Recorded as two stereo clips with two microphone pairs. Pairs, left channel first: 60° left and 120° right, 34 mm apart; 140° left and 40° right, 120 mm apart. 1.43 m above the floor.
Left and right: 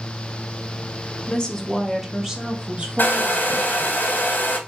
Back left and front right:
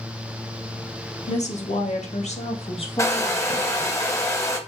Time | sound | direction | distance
1.3 | a woman speaking | 120° left | 0.8 m
3.0 | a hair dryer | 80° left | 0.7 m